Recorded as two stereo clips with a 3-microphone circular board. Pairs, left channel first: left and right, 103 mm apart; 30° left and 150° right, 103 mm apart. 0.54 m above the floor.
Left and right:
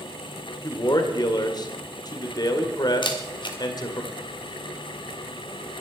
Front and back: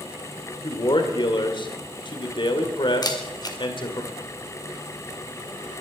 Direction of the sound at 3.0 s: 70° left.